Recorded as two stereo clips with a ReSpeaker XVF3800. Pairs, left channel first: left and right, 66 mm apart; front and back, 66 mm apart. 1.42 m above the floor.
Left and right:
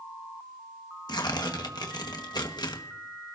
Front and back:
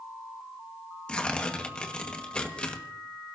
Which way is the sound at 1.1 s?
75° left.